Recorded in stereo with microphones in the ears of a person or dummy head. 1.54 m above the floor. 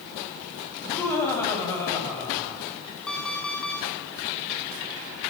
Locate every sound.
0.8 s laughter: 15° left (ahead or behind), 10 m
3.1 s an alarm clock: 5° left (ahead or behind), 6 m